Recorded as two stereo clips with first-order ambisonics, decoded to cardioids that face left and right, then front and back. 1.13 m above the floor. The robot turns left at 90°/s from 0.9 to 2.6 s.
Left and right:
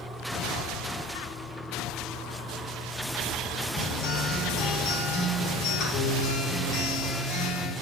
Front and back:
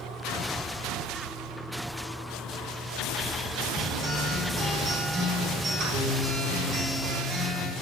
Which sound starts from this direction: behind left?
A guitar, at 3.8 s.